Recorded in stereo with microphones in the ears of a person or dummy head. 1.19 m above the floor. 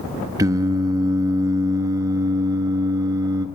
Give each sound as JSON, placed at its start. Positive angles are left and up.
{"t": 0.4, "sound": "singing", "side_deg": -20, "distance_m": 0.9}